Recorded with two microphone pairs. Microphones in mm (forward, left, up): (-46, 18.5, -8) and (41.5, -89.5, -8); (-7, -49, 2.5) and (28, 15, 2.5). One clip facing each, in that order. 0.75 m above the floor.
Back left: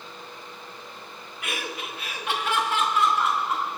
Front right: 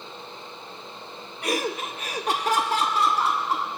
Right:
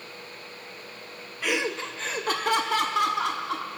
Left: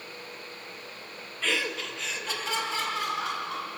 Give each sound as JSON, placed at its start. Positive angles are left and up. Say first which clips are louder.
{"t": 1.4, "sound": "laughter", "louder": "front right 7 dB, right 3 dB", "azimuth_deg": -45, "distance_m": 0.5}